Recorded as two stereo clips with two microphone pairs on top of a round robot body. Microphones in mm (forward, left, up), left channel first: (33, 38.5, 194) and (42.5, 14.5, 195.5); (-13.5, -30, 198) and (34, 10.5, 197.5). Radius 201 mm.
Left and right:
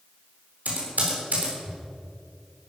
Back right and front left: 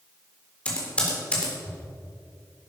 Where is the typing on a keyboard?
70° right, 3.5 m.